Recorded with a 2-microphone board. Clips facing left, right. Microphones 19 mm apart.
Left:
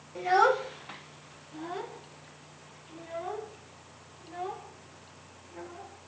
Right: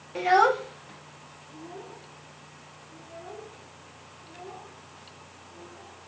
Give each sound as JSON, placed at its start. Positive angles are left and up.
{"t": 0.1, "sound": "a child speaking", "side_deg": -40, "distance_m": 0.7}